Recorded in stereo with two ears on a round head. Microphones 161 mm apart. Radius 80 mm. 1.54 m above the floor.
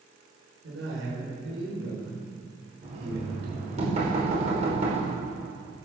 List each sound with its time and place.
0.6 s a man speaking: 85° right, 6.5 m
2.8 s knocking: 40° right (ahead or behind), 5 m